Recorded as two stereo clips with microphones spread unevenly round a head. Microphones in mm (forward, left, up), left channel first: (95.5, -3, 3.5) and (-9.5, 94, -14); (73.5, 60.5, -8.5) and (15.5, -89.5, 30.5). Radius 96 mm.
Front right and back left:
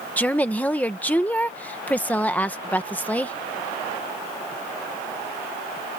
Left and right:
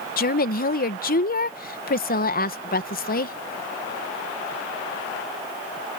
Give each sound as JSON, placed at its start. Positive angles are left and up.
{"t": 0.2, "sound": "a woman speaking", "azimuth_deg": 35}